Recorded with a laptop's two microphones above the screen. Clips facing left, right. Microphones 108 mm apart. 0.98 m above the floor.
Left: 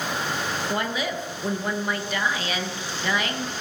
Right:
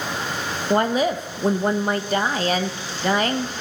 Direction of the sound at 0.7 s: 40° right (ahead or behind).